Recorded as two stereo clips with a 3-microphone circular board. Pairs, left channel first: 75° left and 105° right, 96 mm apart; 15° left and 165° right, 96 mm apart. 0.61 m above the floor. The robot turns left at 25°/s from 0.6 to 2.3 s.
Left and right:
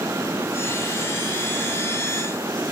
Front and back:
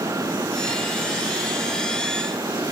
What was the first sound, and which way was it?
Only background noise.